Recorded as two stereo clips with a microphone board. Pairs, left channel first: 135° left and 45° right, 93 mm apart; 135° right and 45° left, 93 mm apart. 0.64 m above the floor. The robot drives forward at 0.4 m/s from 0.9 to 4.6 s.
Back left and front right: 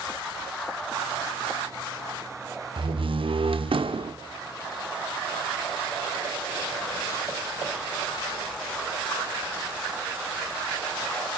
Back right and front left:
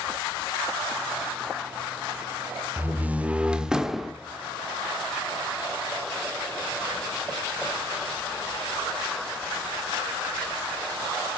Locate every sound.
2.8 s a door slam: 25° right, 1.3 m; by 4.1 s 45° right, 0.9 m